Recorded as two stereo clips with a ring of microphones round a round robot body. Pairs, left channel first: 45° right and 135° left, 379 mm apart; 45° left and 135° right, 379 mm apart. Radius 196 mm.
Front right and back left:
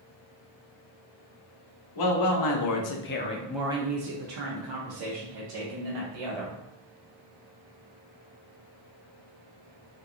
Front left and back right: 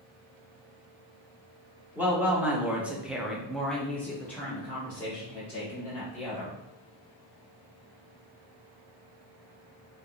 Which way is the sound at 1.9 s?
50° right.